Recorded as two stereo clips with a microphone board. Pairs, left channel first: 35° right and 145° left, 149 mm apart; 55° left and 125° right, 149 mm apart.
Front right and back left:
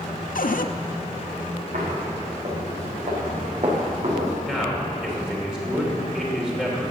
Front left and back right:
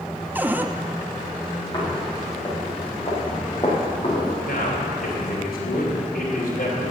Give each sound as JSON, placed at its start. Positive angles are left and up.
{"t": 0.3, "sound": "a cupboard door", "azimuth_deg": -45, "distance_m": 0.5}
{"t": 1.7, "sound": "footsteps", "azimuth_deg": 110, "distance_m": 5.5}
{"t": 4.4, "sound": "a man speaking", "azimuth_deg": 60, "distance_m": 3.0}